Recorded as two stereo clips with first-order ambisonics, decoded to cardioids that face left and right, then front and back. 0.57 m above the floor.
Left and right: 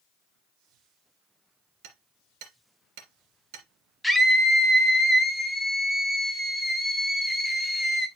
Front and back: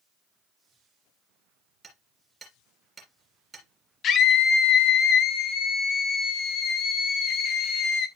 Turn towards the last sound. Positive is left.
turn(degrees=10)